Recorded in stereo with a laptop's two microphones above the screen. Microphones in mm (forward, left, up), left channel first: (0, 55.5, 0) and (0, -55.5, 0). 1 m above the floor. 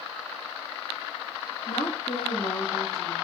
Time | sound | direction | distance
1.7 | a woman speaking | 85° left | 2 m